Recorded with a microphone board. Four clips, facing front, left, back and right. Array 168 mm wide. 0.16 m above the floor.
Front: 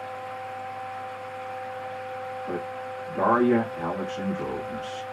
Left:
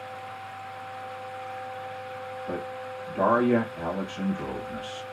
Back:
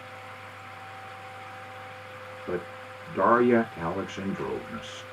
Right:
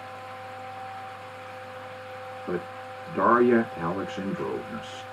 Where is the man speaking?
115° right, 1.4 m.